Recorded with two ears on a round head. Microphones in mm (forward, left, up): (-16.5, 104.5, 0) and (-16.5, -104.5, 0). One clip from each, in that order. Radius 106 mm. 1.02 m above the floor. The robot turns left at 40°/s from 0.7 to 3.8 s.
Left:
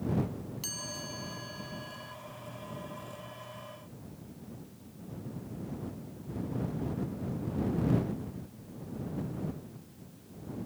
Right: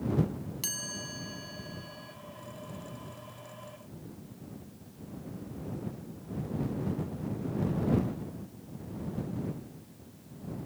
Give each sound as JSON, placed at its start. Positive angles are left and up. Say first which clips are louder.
{"t": 0.6, "sound": "a chime", "louder": "right 2 dB", "azimuth_deg": -155}